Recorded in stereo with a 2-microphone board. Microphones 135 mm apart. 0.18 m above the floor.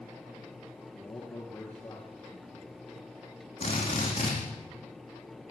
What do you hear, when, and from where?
0.9 s a man speaking: 10° left (ahead or behind), 3.5 m
3.6 s a drill: 40° left (ahead or behind), 7.5 m